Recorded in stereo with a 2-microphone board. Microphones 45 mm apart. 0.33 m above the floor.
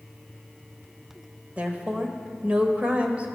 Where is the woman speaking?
30° right (ahead or behind), 1.0 m.